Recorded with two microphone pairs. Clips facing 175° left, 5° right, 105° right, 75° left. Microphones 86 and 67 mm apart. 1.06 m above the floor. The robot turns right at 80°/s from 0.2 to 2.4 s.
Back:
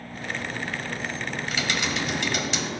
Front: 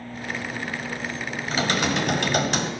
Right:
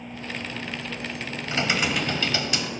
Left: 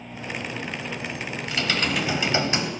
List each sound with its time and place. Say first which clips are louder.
1.5 s typing on a keyboard: front 6 dB, right 1 dB; 55° right, 1.3 m; by 2.7 s 20° left, 1.3 m